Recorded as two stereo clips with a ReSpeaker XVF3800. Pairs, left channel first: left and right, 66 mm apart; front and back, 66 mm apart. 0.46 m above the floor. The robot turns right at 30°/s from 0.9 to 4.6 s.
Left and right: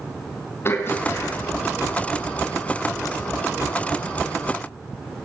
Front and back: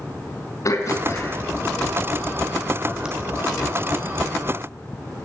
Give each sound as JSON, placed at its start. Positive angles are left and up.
{"t": 0.7, "sound": "throat clearing", "azimuth_deg": 40, "distance_m": 4.0}